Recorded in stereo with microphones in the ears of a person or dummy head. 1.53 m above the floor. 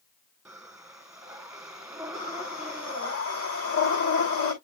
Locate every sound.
0.5 s breathing: 5° right (ahead or behind), 1.6 m
2.1 s breathing: 80° left, 6 m